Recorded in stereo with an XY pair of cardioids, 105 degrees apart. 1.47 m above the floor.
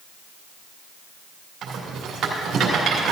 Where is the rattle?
65° right, 2.5 m.